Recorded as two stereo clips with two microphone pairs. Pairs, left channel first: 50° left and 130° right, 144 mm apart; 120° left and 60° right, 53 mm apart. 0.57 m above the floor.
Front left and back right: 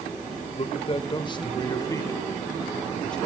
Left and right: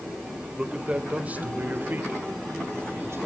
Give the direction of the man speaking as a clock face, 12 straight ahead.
12 o'clock.